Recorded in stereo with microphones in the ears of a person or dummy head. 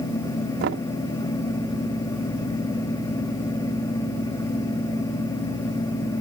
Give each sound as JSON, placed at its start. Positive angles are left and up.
{"t": 0.6, "sound": "knocking", "side_deg": -65}